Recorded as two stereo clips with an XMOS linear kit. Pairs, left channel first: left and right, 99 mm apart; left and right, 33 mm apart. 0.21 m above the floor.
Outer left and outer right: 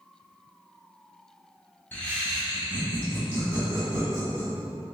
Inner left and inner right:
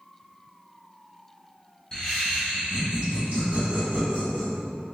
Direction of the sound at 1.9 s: 20° left (ahead or behind).